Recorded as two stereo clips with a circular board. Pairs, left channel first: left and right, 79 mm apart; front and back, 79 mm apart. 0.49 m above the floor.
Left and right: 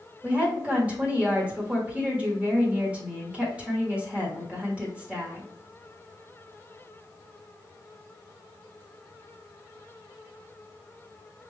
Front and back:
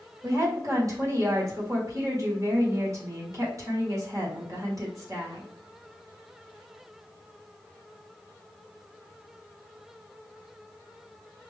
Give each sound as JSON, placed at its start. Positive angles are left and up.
{"t": 0.2, "sound": "a woman speaking", "azimuth_deg": -155, "distance_m": 1.4}